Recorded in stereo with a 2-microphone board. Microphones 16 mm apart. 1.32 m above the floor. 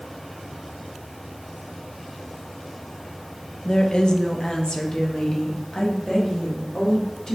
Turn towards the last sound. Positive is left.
turn(degrees=50)  # may be behind; listen again after turning